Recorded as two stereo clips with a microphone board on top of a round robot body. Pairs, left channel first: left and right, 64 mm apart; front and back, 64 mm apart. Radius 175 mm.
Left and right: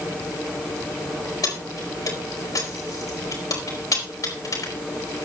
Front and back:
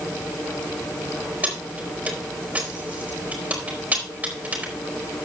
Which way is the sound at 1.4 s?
115° left.